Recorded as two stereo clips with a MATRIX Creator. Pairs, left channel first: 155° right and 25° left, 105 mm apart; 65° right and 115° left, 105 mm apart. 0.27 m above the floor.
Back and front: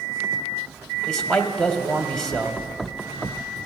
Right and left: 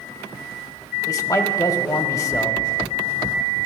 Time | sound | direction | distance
1.1 | a man speaking | 75° right | 1.1 m